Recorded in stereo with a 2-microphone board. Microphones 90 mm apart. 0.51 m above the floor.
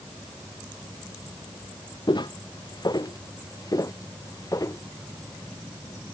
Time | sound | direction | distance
2.1 | footsteps | 55° left (ahead or behind) | ?